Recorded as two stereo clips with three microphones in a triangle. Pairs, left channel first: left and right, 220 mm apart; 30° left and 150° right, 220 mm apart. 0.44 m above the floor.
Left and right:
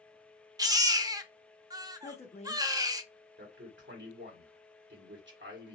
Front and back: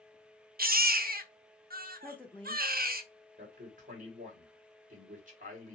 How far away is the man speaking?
About 2 m.